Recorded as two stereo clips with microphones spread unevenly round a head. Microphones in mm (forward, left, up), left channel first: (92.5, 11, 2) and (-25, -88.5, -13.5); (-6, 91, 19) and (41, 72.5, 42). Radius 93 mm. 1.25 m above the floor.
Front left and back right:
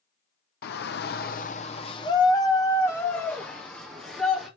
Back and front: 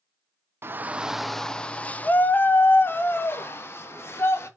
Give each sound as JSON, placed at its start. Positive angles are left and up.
{"t": 0.6, "sound": "a shout", "azimuth_deg": 35, "distance_m": 0.7}